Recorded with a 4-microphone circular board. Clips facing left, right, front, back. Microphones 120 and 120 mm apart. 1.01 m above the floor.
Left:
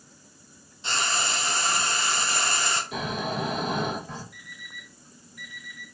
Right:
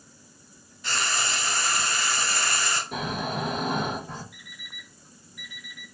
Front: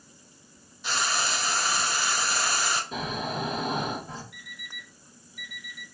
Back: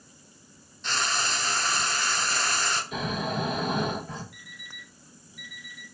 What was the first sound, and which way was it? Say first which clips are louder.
Frying: left 1 dB, front 1 dB; 70° left.